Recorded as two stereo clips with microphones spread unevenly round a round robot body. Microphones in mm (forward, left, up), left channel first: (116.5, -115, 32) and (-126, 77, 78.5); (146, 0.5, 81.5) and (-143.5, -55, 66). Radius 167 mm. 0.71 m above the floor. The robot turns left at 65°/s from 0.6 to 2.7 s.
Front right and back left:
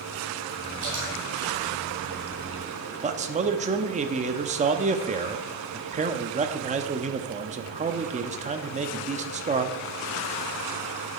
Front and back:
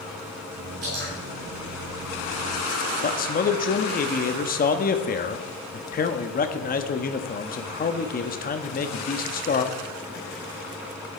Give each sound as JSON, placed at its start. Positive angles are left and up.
{"t": 0.8, "sound": "dripping", "azimuth_deg": 145, "distance_m": 6.5}
{"t": 3.0, "sound": "a man speaking", "azimuth_deg": 70, "distance_m": 1.0}